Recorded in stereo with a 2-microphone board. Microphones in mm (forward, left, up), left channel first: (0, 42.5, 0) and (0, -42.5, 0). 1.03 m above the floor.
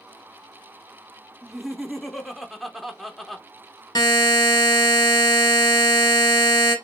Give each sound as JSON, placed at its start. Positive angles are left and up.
{"t": 1.4, "sound": "laughter", "side_deg": 0, "distance_m": 0.6}
{"t": 4.0, "sound": "a buzzer", "side_deg": 55, "distance_m": 1.3}